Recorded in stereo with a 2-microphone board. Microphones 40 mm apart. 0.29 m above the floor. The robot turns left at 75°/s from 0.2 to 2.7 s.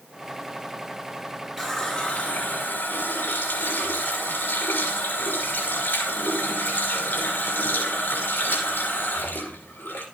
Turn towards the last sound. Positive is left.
turn(degrees=105)